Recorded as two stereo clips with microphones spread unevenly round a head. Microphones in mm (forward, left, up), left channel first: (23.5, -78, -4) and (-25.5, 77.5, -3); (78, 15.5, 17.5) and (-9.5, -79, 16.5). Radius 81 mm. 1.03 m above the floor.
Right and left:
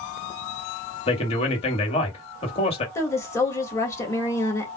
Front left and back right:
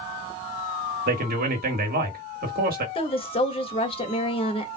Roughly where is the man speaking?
Behind right.